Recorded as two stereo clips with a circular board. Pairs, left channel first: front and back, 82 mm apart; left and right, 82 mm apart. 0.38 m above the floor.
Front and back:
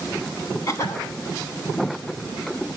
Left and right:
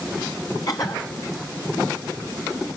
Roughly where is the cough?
Ahead left.